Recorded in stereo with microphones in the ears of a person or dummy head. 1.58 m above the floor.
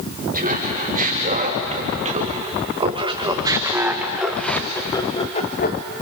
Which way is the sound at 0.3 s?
35° right (ahead or behind).